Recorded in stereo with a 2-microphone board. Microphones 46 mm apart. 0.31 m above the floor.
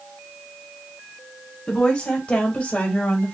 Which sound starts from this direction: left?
A woman speaking, at 1.7 s.